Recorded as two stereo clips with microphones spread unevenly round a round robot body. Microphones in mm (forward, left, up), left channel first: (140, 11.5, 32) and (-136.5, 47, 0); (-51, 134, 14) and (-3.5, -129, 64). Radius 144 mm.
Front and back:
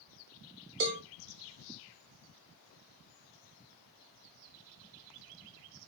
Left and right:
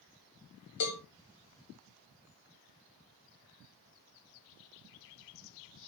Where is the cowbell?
125° left, 0.6 m.